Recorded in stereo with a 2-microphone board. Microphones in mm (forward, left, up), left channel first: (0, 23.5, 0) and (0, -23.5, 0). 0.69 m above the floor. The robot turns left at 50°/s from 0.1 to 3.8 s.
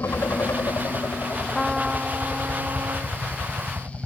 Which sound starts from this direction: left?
A helicopter, at 0.0 s.